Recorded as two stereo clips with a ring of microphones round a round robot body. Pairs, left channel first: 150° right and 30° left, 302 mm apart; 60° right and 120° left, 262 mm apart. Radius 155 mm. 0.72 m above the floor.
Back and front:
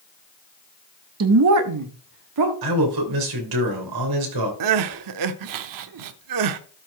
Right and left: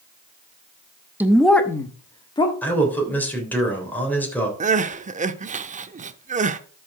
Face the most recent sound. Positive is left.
turn(degrees=55)